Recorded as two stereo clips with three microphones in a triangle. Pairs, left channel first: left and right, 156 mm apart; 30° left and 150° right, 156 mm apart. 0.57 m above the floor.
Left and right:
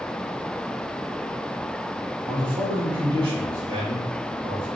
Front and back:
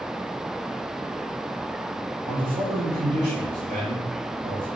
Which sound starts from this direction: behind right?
A man speaking, at 2.3 s.